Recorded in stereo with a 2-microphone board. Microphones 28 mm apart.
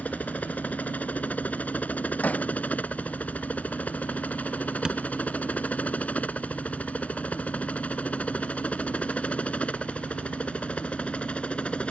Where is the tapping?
25° right (ahead or behind).